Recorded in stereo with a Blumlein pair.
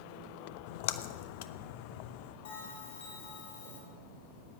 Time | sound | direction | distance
0.7 | a splash | 50° left | 0.7 m
2.5 | a bell | 65° left | 6 m